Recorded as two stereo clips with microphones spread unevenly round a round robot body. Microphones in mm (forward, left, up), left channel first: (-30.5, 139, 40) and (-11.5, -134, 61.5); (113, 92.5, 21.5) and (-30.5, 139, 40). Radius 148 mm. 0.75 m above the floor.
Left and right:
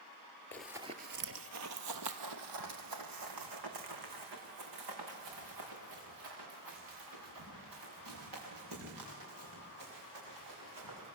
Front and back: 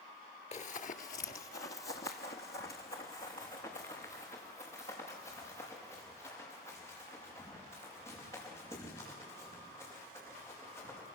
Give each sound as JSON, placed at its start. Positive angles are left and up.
{"t": 0.5, "sound": "running footsteps", "azimuth_deg": 10, "distance_m": 0.9}